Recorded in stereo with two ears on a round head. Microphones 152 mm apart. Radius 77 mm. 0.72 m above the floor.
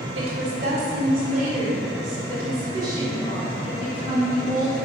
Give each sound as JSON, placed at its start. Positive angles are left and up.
{"t": 0.1, "sound": "a woman speaking", "side_deg": -70, "distance_m": 2.0}